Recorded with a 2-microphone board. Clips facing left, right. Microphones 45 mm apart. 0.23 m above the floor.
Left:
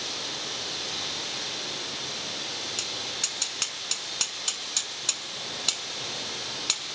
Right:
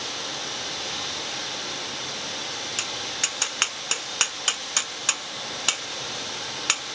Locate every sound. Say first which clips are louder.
0.0 s running water: right 3 dB; 70° right (ahead or behind), 7.5 m
2.8 s tapping: right 4 dB; 55° right (ahead or behind), 0.6 m